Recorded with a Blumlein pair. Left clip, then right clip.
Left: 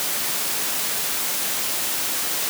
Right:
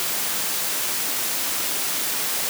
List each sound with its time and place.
Only background noise.